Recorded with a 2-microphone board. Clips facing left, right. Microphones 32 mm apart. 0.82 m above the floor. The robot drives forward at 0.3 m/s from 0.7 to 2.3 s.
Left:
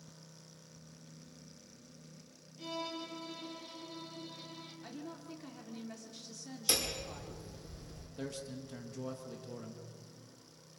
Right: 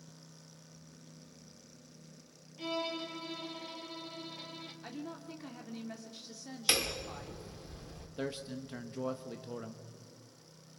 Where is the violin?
30° right (ahead or behind), 2 m.